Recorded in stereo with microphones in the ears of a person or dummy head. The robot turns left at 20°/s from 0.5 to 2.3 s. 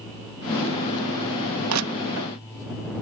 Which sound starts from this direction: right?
Crushing, at 1.7 s.